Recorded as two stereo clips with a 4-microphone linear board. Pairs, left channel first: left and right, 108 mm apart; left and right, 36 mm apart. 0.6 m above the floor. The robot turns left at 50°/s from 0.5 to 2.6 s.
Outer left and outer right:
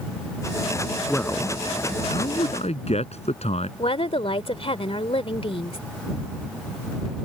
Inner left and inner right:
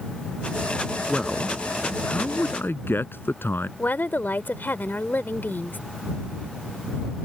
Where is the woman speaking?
65° left (ahead or behind).